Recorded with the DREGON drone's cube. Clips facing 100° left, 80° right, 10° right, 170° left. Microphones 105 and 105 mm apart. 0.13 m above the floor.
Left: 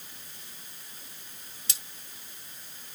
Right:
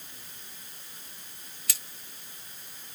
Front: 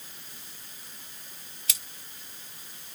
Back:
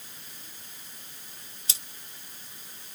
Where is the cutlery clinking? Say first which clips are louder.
Right 2 dB, front 1 dB; 140° left, 0.8 m.